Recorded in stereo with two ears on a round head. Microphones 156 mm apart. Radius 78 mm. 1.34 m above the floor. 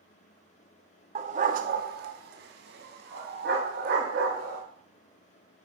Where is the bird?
I don't hear a bird.